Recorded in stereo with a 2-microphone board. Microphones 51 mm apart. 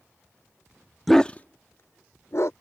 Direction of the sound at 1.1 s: Centre (ahead or behind).